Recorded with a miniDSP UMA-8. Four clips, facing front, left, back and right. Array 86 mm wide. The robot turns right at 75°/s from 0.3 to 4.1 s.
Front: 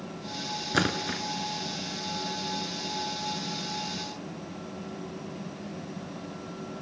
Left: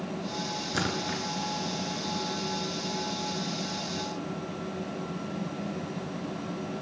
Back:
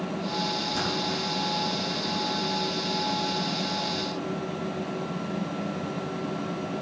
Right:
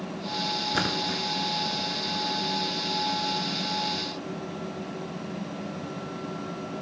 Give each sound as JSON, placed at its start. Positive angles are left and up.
{"t": 0.7, "sound": "a splash", "azimuth_deg": -15, "distance_m": 1.5}